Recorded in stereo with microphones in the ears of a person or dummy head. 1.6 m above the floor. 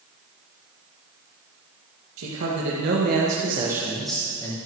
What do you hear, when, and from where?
2.2 s a man speaking: 80° right, 2.5 m; by 4.6 s 20° left (ahead or behind), 1.9 m